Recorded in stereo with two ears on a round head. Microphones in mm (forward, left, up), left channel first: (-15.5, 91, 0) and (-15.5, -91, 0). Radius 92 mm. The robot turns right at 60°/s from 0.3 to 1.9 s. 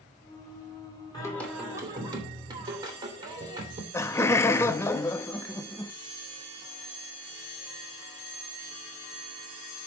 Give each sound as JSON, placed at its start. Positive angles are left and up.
{"t": 1.1, "sound": "singing", "azimuth_deg": 155, "distance_m": 3.0}
{"t": 3.9, "sound": "laughter", "side_deg": 15, "distance_m": 0.5}